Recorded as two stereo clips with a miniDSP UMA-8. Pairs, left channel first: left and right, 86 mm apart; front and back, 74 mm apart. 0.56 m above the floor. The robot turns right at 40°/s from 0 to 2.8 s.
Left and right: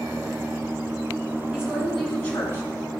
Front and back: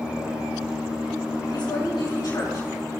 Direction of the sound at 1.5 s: 15° right.